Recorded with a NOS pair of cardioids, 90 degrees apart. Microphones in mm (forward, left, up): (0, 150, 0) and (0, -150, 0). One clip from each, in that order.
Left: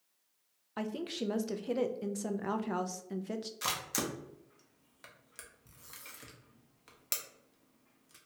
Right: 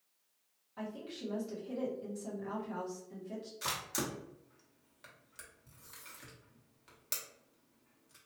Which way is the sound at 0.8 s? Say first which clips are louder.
Left 6 dB; 65° left.